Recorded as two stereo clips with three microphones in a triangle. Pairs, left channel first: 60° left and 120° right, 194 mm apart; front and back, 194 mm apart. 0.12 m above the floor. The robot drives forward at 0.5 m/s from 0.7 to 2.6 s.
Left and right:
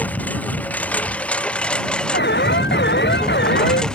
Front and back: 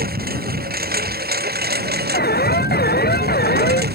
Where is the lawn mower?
140° left; by 3.9 s 145° left.